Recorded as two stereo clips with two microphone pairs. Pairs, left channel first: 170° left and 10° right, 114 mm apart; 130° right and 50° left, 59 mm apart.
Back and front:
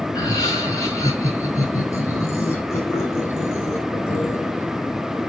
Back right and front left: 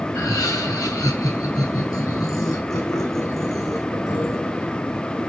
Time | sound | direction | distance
0.1 | laughter | 135° right | 3 m